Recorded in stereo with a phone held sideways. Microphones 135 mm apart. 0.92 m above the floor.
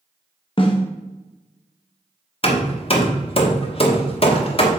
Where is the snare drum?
40° left (ahead or behind), 1.1 m.